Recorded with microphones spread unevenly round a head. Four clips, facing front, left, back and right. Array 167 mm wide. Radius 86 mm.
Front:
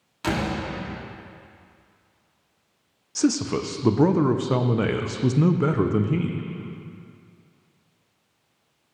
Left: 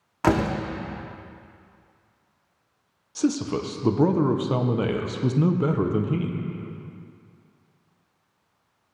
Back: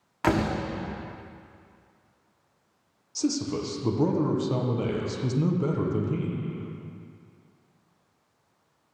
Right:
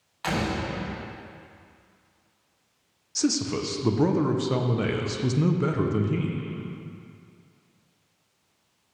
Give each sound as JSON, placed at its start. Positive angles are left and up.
{"t": 0.2, "sound": "a door slam", "azimuth_deg": 90, "distance_m": 1.5}
{"t": 3.1, "sound": "a man speaking", "azimuth_deg": 35, "distance_m": 0.6}